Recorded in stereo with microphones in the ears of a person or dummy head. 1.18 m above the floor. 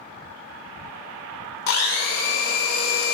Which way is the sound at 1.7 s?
55° left (ahead or behind).